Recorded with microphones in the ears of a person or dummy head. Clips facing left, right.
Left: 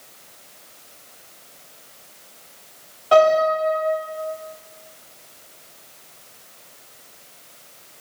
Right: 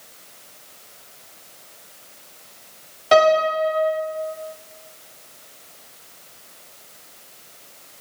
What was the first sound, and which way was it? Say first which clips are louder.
A piano: left 1 dB; 25° right (ahead or behind).